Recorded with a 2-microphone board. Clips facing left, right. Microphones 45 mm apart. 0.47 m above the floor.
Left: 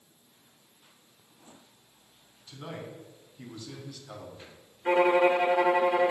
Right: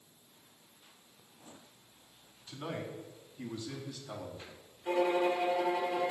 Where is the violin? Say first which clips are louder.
Left 7 dB; 60° left (ahead or behind), 0.7 m.